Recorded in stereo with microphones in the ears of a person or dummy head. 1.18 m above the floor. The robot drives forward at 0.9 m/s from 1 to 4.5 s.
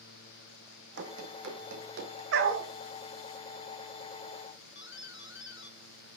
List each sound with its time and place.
1.0 s running footsteps: 65° right (ahead or behind), 3 m; by 2.2 s 70° right (ahead or behind), 3 m
2.3 s a dog barking: 70° right (ahead or behind), 3 m; by 2.7 s 65° right (ahead or behind), 3 m
4.8 s a doorbell: 60° left (ahead or behind), 1.8 m